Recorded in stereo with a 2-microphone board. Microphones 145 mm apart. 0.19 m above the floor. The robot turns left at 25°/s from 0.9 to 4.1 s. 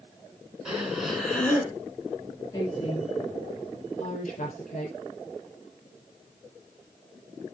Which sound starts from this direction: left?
A woman speaking, at 2.5 s.